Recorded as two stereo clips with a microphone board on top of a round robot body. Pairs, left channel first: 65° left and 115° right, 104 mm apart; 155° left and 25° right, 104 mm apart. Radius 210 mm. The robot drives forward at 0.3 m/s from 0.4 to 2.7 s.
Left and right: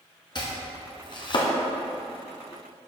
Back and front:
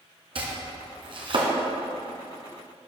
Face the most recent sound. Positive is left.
turn(degrees=30)